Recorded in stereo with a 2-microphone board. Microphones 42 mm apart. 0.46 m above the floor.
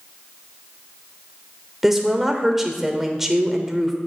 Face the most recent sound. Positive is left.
turn(degrees=-5)  # may be behind; listen again after turning